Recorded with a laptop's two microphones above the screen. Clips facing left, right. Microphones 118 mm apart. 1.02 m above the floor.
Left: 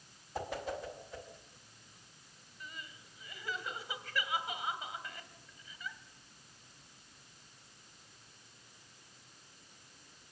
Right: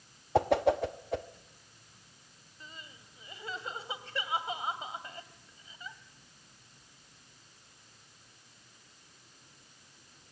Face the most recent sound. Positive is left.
turn(degrees=-30)  # may be behind; listen again after turning